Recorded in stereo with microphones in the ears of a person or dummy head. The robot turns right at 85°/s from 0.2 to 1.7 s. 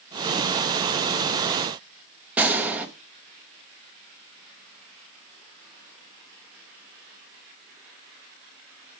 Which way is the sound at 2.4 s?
5° right (ahead or behind).